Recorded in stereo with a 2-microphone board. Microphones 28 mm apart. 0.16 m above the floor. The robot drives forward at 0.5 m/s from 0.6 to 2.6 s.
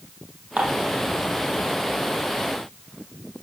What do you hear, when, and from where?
0.6 s dishes clattering: 65° right (ahead or behind), 4 m